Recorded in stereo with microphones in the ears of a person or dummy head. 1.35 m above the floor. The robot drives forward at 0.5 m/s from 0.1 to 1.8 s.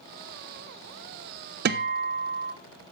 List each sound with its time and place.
1.6 s a guitar: 55° right (ahead or behind), 1.0 m